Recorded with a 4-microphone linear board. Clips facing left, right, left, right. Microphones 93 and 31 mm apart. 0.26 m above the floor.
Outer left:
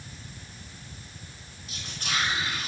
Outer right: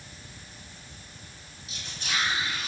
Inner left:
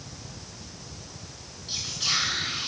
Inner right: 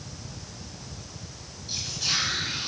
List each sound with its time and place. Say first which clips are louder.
1.7 s whispering: outer left 1 dB, inner left 1 dB; 45° left (ahead or behind), 3.5 m